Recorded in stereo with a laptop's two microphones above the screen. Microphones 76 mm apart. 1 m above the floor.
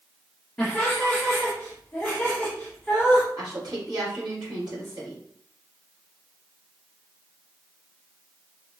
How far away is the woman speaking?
About 2.5 m.